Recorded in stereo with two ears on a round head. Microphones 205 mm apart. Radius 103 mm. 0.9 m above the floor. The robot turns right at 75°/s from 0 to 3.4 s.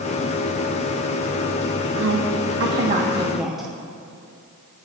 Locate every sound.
2.0 s a woman speaking: 60° right (ahead or behind), 1.3 m; by 3.7 s centre (ahead or behind), 1.3 m